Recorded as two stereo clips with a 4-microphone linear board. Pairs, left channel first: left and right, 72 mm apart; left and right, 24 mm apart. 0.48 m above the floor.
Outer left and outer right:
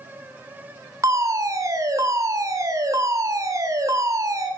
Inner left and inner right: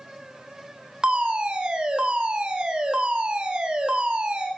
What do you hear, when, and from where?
1.0 s a fire alarm: 50° right (ahead or behind), 3 m